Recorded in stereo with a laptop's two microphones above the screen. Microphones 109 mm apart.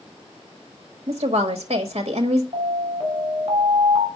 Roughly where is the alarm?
Right.